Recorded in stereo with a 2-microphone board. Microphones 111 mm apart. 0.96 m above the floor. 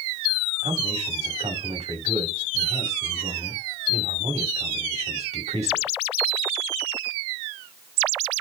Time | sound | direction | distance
0.6 | a man speaking | 75° right (ahead or behind) | 4.5 m